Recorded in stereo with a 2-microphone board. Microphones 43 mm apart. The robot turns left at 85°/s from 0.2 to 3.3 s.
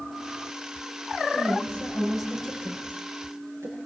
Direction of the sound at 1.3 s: 80° left.